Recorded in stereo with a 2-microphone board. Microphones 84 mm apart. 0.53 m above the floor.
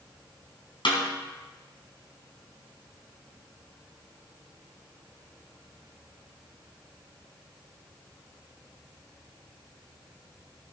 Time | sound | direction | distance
0.8 | a snare drum | 80° left | 2.5 m